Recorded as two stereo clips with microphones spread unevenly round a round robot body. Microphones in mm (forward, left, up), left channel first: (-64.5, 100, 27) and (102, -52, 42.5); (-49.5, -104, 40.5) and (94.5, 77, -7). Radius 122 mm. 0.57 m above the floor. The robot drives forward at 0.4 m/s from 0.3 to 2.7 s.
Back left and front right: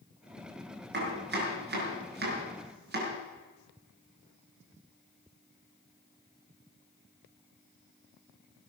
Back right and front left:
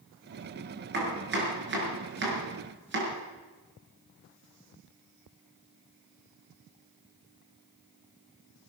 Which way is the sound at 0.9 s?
5° left.